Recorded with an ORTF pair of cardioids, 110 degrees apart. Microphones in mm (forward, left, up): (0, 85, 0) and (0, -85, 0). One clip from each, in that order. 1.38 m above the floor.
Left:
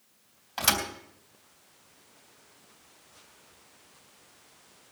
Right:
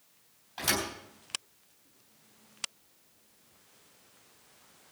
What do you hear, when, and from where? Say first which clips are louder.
0.6 s a thud: left 4 dB; 60° left, 3 m